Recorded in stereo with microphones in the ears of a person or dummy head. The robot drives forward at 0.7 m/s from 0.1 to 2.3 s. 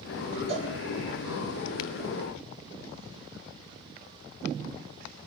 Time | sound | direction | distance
0.5 | a cowbell | 40° right (ahead or behind) | 4 m